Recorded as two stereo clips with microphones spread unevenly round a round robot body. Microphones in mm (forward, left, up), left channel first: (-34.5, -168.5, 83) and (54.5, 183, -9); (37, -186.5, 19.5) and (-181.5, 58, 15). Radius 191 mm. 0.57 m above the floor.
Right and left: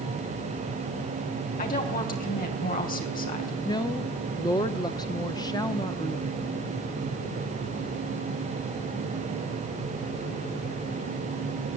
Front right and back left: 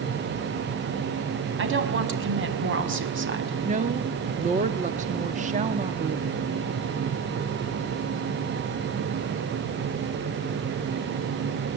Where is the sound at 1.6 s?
175° right, 4 m.